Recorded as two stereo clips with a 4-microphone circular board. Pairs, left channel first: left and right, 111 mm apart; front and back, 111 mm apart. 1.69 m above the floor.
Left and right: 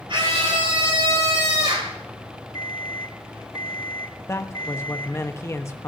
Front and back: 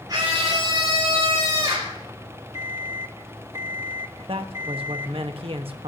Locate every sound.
0.1 s a scream: 130° right, 5 m; by 2.0 s 125° right, 4 m
2.5 s an alarm clock: 130° left, 1.9 m
4.3 s a man speaking: 150° left, 1.3 m